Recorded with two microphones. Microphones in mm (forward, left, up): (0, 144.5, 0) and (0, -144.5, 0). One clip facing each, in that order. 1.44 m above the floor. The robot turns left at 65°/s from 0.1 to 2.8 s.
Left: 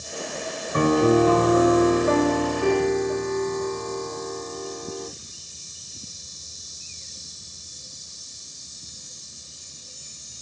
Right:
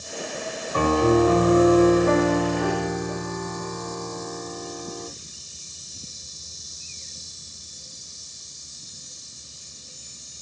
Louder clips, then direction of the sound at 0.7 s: Left 1 dB; 25° left.